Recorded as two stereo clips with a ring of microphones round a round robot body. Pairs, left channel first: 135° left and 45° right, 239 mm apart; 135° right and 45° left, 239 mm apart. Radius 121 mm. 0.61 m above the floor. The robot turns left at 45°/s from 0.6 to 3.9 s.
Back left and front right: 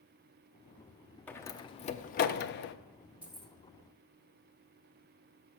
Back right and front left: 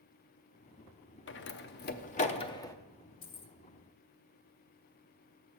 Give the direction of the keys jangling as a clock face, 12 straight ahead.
4 o'clock.